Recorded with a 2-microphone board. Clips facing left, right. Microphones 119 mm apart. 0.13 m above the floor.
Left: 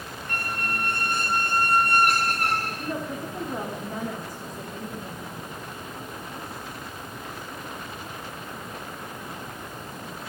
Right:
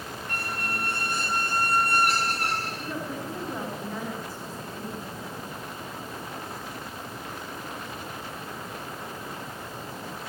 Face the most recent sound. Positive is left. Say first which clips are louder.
# left 2 dB
turn(degrees=15)  # may be behind; listen again after turning